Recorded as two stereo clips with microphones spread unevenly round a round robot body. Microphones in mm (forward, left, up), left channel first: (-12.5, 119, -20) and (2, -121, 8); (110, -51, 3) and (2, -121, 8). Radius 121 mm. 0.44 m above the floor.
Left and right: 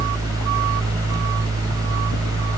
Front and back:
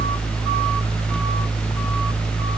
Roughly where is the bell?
I don't hear a bell.